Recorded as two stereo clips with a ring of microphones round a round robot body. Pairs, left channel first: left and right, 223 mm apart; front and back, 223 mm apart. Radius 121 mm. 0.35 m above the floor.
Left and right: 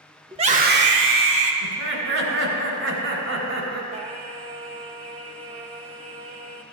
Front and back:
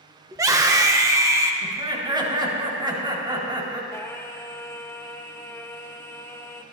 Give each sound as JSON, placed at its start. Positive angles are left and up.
{"t": 0.3, "sound": "a scream", "azimuth_deg": -130, "distance_m": 0.9}
{"t": 1.6, "sound": "laughter", "azimuth_deg": -110, "distance_m": 3.5}
{"t": 3.9, "sound": "singing", "azimuth_deg": -65, "distance_m": 0.7}